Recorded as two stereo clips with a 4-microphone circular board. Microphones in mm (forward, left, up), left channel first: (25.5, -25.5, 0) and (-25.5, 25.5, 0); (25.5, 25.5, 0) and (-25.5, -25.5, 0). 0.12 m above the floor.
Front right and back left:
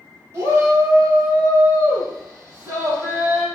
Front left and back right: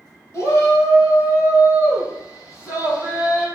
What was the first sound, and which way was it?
A shout, 85° left.